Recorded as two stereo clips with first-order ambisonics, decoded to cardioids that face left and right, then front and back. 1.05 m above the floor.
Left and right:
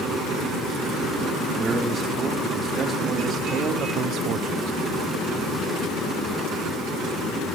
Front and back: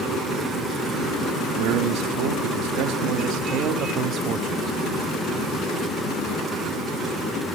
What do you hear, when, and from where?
1.6 s a man speaking: 170° right, 2 m; by 4.7 s 120° right, 1.1 m